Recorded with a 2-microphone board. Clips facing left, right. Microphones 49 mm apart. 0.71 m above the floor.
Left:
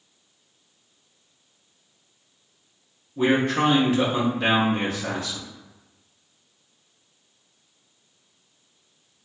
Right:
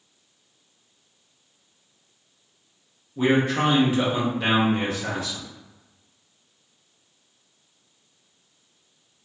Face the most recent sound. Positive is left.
turn(degrees=-10)  # may be behind; listen again after turning